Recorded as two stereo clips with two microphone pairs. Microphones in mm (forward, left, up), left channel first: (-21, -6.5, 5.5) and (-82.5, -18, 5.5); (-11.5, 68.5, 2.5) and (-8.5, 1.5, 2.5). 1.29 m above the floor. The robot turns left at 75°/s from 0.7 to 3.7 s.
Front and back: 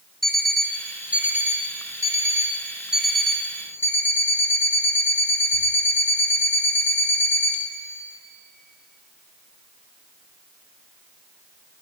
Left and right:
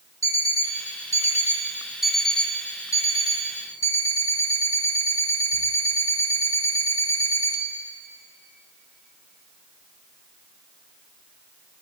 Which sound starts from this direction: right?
An alarm clock, at 0.2 s.